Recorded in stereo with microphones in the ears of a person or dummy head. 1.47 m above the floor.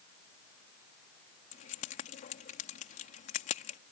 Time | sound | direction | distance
1.5 | keys jangling | 40° left (ahead or behind) | ?